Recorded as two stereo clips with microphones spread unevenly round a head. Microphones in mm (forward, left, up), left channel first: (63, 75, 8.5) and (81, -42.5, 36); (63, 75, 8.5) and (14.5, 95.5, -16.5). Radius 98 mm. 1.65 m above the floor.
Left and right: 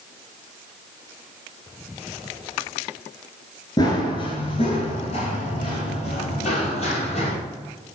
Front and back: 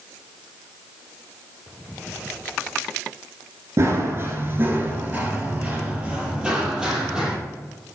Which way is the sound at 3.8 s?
145° left.